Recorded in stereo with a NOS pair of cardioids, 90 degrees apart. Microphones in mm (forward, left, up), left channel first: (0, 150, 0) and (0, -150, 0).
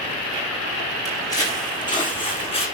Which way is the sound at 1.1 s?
10° left.